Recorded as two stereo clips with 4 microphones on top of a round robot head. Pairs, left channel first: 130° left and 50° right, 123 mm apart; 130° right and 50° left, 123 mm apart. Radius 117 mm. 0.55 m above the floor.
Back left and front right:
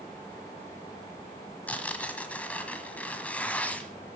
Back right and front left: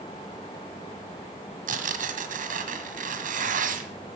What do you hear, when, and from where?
1.7 s tearing paper: 50° left, 1.6 m